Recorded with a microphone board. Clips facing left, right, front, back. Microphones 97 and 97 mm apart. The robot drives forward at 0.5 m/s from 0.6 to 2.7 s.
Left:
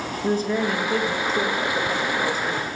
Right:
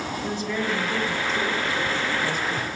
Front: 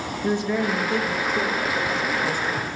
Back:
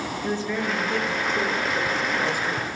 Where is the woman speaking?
65° left, 1.7 m; by 2.7 s 115° left, 1.7 m.